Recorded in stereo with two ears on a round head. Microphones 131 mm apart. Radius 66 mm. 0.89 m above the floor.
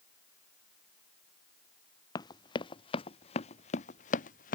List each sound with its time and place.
2.1 s running footsteps: 30° left (ahead or behind); by 4.6 s 65° left (ahead or behind)